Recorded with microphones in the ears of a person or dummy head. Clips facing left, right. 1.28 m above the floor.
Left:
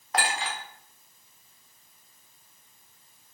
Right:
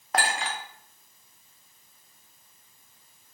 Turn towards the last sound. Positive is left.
turn(degrees=-45)  # may be behind; listen again after turning